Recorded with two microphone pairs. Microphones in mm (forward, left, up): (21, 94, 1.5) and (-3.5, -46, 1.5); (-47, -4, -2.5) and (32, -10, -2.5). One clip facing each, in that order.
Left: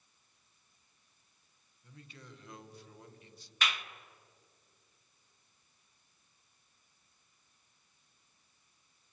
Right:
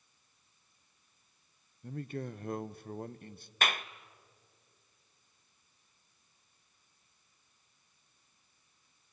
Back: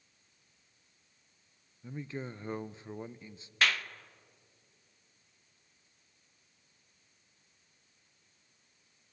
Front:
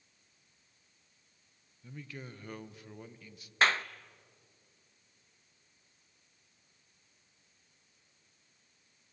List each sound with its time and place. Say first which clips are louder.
1.8 s a man speaking: right 16 dB, back 6 dB; 125° right, 0.7 m
3.6 s a clap: right 4 dB, front 3 dB; 60° right, 0.6 m